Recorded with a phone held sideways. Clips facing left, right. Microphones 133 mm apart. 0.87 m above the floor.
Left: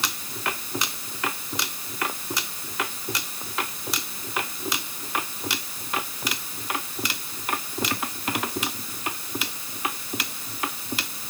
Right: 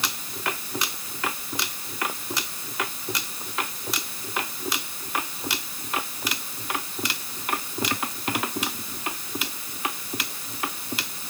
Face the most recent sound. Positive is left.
No sound to turn to.